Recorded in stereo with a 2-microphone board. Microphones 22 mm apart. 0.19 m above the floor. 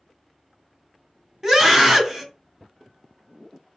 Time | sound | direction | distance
1.4 | a scream | 25° right (ahead or behind) | 1.2 m